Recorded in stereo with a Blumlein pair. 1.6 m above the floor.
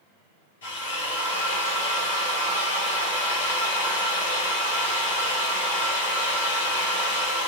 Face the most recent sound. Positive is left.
turn(degrees=60)